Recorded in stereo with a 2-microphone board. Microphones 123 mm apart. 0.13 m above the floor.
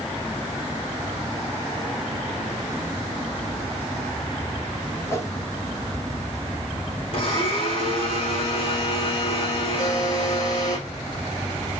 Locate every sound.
5.1 s a whoosh: 20° left (ahead or behind), 1.3 m
7.1 s a blender: 50° left (ahead or behind), 4 m
9.8 s a buzzer: 35° left (ahead or behind), 2 m